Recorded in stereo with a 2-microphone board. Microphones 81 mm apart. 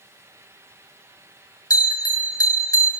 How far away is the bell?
About 1.2 m.